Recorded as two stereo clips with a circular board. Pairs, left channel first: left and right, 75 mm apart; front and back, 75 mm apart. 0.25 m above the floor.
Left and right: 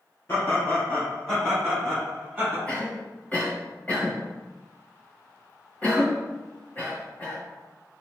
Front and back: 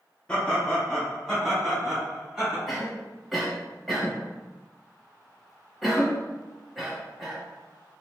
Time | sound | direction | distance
0.3 | laughter | 65° left | 1.9 m
2.7 | a cough | 95° left | 1.0 m